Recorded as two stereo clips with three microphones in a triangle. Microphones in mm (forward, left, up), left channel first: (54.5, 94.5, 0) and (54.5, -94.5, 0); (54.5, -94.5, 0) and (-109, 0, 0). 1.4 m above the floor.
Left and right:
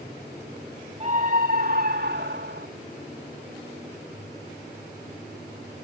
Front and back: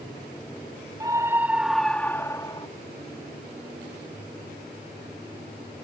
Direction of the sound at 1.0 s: 140° right.